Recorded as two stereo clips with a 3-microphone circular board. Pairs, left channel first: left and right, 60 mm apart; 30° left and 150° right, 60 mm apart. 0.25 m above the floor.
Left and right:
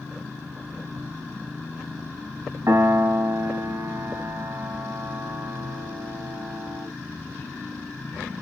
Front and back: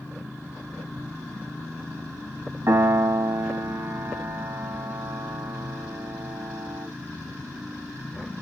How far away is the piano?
About 0.6 m.